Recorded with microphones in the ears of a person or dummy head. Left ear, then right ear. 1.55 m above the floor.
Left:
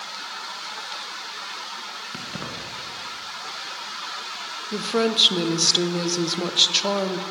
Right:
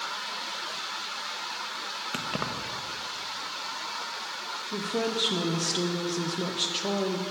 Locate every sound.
2.1 s keys jangling: 25° right (ahead or behind), 1.0 m
4.7 s a woman speaking: 50° left (ahead or behind), 0.8 m